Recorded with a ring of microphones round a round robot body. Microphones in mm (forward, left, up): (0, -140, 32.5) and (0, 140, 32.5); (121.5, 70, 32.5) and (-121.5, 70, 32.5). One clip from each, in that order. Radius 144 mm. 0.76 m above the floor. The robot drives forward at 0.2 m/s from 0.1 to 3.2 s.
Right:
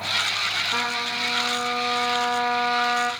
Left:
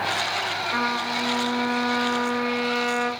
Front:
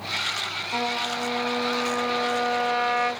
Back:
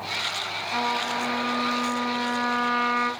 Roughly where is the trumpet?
Behind left.